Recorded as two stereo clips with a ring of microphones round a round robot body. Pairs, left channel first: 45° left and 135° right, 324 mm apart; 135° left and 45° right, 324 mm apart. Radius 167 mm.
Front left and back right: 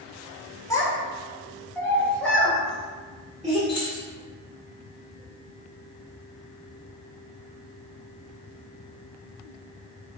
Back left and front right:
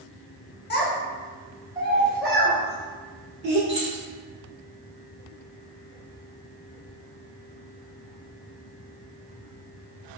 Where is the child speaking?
120° left, 0.8 m; by 3.6 s 45° right, 1.3 m.